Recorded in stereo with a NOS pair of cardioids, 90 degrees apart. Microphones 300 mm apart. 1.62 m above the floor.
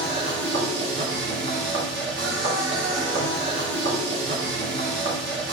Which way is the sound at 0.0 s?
40° right.